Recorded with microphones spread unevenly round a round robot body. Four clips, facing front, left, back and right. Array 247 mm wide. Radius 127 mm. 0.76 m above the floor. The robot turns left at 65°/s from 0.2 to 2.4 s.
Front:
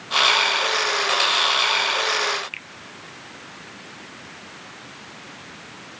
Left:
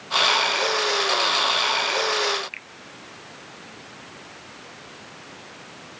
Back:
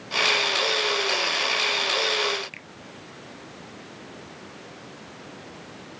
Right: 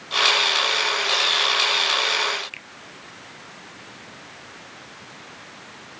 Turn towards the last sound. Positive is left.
turn(degrees=-155)